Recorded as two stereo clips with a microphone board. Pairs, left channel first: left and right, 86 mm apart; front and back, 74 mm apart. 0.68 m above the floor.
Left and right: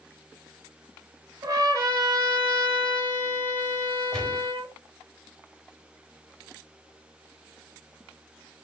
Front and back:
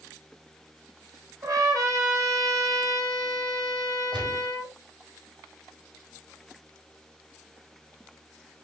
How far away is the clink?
I don't hear a clink.